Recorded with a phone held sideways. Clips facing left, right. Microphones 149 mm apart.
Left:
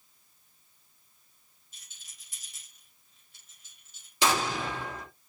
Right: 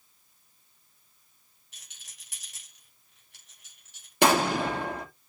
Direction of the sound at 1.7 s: 85° right.